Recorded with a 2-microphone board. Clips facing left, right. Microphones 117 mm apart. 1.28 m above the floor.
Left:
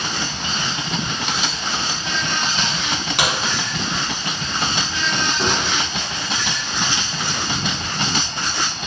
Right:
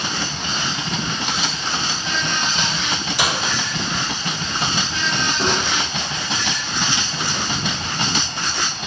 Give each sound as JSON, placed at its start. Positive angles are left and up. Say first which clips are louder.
{"t": 3.2, "sound": "a crack", "louder": "left 1 dB", "side_deg": 70, "distance_m": 1.3}
{"t": 5.4, "sound": "a gunshot", "louder": "right 1 dB", "side_deg": -5, "distance_m": 0.8}